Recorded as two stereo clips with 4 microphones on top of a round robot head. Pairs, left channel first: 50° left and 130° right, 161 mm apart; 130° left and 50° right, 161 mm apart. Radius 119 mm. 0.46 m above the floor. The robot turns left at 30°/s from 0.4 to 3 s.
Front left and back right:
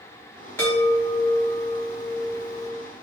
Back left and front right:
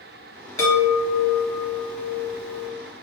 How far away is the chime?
About 1.3 m.